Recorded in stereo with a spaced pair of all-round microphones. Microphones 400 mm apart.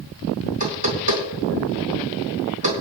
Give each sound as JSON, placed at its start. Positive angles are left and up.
{"t": 0.6, "sound": "knocking", "side_deg": -80, "distance_m": 4.0}